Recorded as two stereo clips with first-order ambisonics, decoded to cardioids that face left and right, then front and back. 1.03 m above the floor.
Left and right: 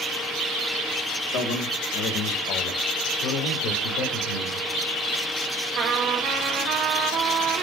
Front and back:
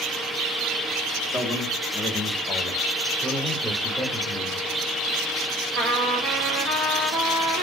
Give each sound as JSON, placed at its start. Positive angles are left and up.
{"t": 1.3, "sound": "a man speaking", "azimuth_deg": 90, "distance_m": 1.7}
{"t": 3.2, "sound": "a man speaking", "azimuth_deg": 105, "distance_m": 2.5}
{"t": 5.8, "sound": "a trumpet", "azimuth_deg": -130, "distance_m": 1.8}